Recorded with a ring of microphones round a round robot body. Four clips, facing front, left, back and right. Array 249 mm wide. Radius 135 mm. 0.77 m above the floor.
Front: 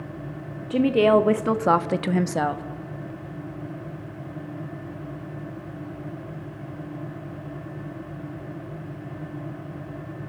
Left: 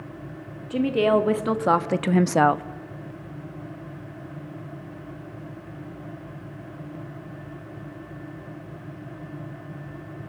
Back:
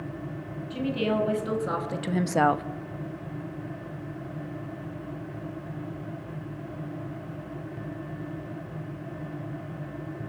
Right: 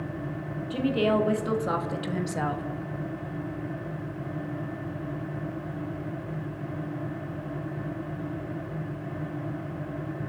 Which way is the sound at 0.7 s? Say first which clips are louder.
Left 4 dB, front 10 dB; 20° left.